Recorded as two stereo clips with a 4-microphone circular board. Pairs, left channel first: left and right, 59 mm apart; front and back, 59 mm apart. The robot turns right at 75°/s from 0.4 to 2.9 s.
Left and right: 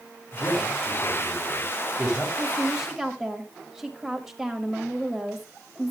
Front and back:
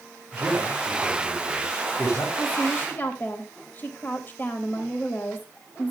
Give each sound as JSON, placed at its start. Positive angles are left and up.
{"t": 0.3, "sound": "a man speaking", "azimuth_deg": -150, "distance_m": 3.0}
{"t": 2.4, "sound": "a woman speaking", "azimuth_deg": -50, "distance_m": 1.3}